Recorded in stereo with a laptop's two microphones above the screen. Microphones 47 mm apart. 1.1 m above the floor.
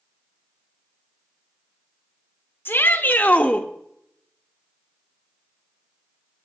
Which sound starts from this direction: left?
A shout, at 2.6 s.